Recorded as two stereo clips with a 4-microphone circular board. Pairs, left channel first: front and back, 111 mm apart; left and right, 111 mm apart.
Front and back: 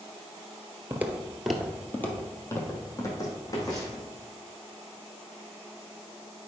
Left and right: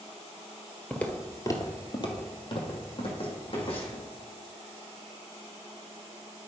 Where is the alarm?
No alarm in this recording.